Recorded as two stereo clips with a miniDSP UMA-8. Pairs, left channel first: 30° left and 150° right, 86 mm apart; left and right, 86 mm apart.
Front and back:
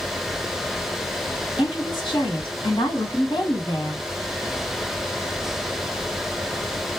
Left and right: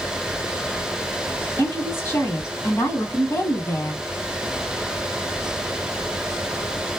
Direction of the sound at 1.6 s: 35° left.